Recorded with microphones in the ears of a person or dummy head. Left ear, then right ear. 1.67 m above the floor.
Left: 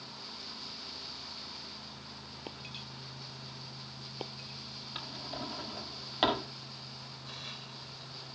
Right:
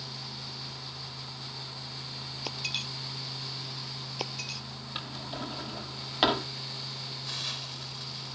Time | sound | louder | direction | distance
2.5 | breaking glass | right 13 dB | 45° right (ahead or behind) | ?
5.0 | a drawer | right 3 dB | 10° right (ahead or behind) | ?
7.2 | a hiss | right 9 dB | 25° right (ahead or behind) | ?